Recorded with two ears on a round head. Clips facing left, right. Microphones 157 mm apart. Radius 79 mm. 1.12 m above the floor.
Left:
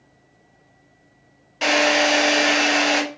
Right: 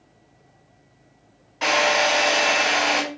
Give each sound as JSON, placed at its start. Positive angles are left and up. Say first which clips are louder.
{"t": 1.6, "sound": "a drill", "louder": "left 2 dB", "side_deg": 35, "distance_m": 1.6}